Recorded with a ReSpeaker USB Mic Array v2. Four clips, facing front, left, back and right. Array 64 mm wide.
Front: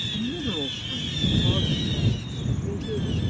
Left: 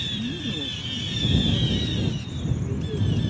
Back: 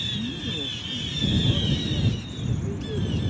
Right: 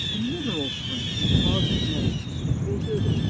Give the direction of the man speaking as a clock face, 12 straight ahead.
2 o'clock.